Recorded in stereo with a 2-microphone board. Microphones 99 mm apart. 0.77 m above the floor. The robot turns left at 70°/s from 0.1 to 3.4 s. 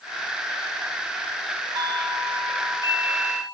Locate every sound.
1.8 s a doorbell: 50° right, 4 m; by 3.4 s 165° right, 4 m